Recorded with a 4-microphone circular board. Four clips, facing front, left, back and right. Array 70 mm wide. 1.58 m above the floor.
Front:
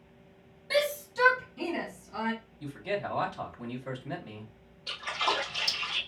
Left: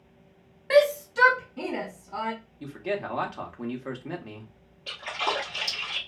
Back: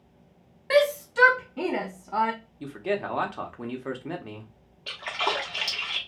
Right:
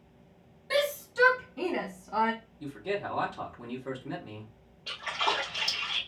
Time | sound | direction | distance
0.7 | a shout | 135° left | 0.8 m
2.6 | a man speaking | 150° left | 0.8 m
4.9 | a splash | 170° left | 1.1 m